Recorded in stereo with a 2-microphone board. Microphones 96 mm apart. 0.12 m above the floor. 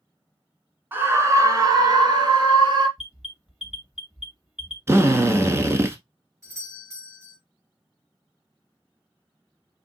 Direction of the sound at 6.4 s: 35° right (ahead or behind).